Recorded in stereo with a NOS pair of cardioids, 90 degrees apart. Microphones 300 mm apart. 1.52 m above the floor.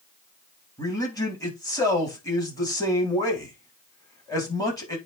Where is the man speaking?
10° left, 4 m.